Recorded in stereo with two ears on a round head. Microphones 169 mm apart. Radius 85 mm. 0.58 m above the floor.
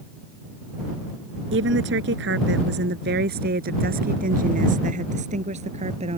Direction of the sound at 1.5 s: 70° right (ahead or behind).